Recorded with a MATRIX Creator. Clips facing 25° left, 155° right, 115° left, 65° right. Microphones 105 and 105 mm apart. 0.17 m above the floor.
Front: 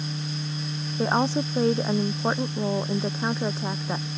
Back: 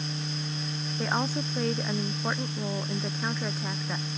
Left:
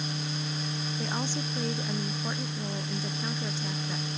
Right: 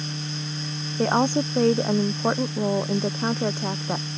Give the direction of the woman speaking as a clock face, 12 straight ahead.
1 o'clock.